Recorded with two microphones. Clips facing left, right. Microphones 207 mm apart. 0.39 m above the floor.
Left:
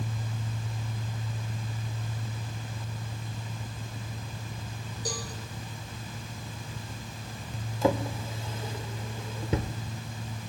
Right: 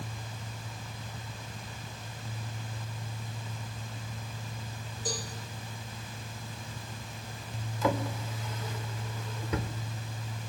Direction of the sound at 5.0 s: 40° left (ahead or behind).